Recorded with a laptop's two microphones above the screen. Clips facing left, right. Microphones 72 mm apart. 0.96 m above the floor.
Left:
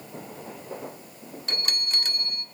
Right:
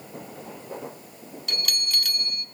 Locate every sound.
1.5 s a bell: 35° left (ahead or behind), 0.6 m